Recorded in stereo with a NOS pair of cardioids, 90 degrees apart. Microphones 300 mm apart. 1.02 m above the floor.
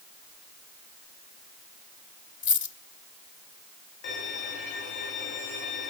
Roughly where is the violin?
Ahead left.